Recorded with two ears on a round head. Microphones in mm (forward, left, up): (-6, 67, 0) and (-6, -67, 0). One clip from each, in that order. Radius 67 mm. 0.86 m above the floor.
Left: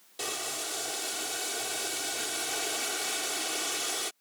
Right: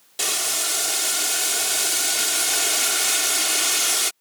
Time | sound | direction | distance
0.2 | boiling | 45° right (ahead or behind) | ?